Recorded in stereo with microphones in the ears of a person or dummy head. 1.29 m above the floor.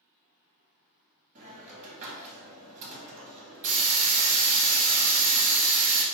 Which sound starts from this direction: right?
A hiss, at 1.4 s.